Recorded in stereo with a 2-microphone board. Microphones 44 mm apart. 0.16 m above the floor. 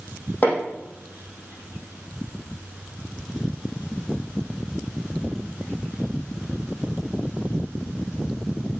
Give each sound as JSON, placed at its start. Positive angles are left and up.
{"t": 0.4, "sound": "hammering", "side_deg": 40, "distance_m": 5.0}